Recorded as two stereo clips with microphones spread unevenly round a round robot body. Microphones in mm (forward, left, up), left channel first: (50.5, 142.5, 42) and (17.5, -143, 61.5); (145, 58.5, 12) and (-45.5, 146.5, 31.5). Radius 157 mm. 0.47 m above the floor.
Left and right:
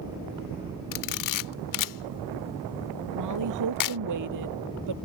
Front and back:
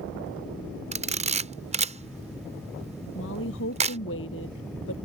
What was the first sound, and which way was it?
A camera shutter, 90° left.